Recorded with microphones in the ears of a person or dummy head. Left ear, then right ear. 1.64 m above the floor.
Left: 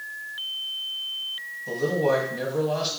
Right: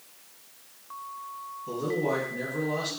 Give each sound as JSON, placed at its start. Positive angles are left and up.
{"t": 1.7, "sound": "a man speaking", "side_deg": 35, "distance_m": 1.4}